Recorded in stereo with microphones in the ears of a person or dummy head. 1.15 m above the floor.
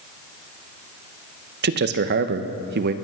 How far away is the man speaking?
About 1.0 m.